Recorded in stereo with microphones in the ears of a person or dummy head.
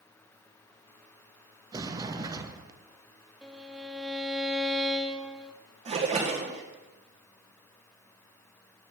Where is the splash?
30° right (ahead or behind), 1.2 m.